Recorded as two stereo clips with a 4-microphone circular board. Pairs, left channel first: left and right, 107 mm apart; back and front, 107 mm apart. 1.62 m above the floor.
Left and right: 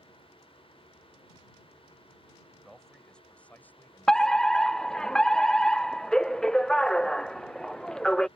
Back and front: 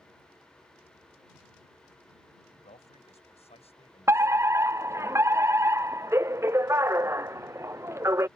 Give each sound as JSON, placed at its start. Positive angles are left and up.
{"t": 2.5, "sound": "a man speaking", "azimuth_deg": 180}
{"t": 4.1, "sound": "a fire alarm", "azimuth_deg": 15}